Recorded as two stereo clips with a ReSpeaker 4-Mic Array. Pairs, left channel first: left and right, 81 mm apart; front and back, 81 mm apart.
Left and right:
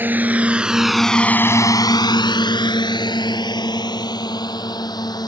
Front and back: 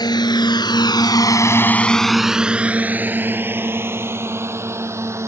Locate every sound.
0.0 s a drone: 25° right; by 5.3 s 125° left